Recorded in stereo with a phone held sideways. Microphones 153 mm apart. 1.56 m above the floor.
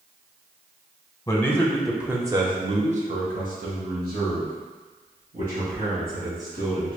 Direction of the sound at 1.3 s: 20° left (ahead or behind).